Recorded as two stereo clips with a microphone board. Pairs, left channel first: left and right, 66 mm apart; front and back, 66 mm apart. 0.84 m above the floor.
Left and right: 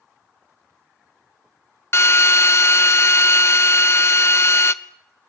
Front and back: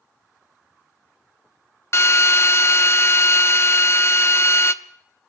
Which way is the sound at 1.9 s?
40° left.